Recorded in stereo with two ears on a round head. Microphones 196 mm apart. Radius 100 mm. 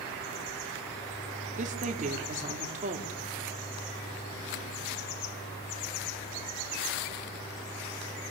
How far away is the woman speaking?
About 3.5 m.